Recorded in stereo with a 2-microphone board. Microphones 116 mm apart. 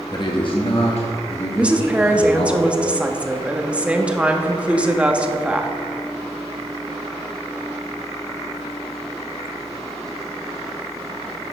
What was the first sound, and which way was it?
A man speaking, 35° left (ahead or behind).